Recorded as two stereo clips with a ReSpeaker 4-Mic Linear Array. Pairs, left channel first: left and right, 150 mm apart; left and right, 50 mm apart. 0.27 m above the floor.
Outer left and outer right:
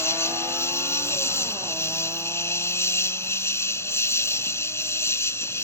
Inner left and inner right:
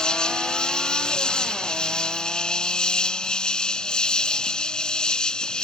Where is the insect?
15° left (ahead or behind).